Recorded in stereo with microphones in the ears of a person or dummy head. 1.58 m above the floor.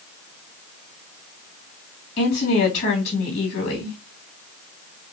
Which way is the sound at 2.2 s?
50° left (ahead or behind).